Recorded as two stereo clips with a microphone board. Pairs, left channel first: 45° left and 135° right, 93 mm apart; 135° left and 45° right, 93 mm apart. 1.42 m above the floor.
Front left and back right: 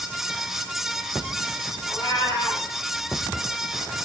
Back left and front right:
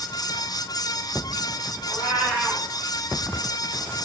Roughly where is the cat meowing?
Behind right.